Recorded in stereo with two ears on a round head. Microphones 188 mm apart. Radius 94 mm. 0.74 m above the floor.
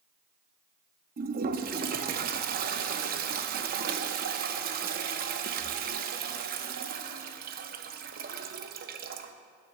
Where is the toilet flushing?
45° right (ahead or behind), 0.6 m.